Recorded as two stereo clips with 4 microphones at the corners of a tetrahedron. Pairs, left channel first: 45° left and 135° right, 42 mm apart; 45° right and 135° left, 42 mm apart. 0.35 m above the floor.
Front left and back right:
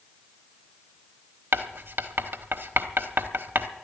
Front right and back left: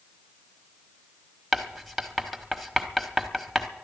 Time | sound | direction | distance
1.5 | writing | 135° right | 1.0 m